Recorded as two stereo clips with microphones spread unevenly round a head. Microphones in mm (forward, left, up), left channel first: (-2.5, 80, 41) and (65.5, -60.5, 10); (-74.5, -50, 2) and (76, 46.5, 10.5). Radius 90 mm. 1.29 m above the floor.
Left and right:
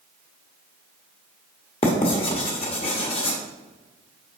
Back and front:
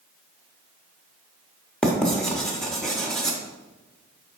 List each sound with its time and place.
1.8 s writing: 120° left, 0.9 m